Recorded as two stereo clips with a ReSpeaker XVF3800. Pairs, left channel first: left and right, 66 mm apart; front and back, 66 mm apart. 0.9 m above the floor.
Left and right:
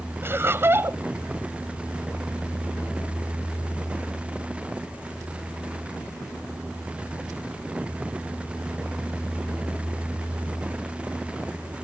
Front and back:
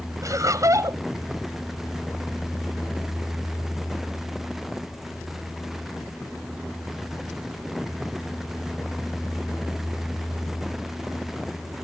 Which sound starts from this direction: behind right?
Laughter, at 0.2 s.